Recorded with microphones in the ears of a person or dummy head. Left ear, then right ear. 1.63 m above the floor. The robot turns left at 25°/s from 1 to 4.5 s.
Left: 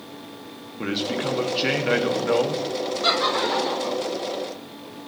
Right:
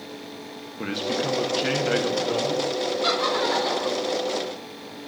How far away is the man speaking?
About 1.2 m.